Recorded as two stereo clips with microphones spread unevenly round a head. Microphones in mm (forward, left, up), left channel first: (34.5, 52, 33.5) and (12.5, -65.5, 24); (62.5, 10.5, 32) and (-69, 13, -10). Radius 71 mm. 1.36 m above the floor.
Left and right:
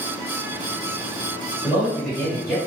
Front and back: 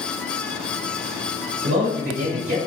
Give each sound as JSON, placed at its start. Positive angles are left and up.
{"t": 1.6, "sound": "a man speaking", "azimuth_deg": 170, "distance_m": 1.3}